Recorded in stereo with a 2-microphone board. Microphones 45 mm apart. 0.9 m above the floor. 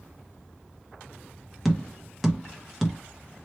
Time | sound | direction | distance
1.6 | tapping | centre (ahead or behind) | 0.9 m